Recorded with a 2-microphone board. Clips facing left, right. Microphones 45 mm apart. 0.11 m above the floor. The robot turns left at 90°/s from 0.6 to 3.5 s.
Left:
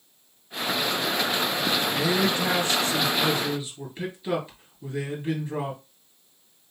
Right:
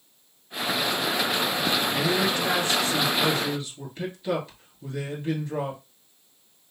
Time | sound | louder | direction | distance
1.9 | a man speaking | even | 160° left | 2 m